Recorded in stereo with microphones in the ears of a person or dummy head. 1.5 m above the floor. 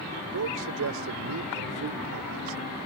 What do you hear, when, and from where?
0.3 s a man speaking: 70° right (ahead or behind)